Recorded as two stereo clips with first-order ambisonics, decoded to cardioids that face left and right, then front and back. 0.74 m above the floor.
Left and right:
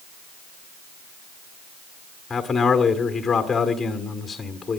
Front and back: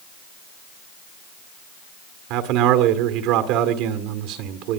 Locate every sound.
2.3 s a man speaking: 165° left, 1.9 m